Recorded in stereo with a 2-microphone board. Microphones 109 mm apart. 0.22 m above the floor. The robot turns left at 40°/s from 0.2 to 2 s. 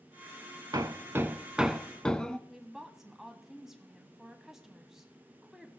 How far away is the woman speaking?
About 1.4 m.